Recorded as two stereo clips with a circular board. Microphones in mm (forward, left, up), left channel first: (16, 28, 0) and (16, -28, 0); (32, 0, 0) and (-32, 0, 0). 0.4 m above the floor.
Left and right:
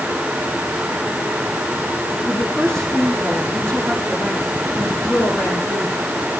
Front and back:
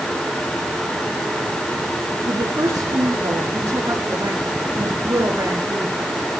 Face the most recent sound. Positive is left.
turn(degrees=145)